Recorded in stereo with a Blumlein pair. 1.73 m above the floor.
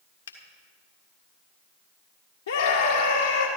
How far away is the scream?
About 1.5 m.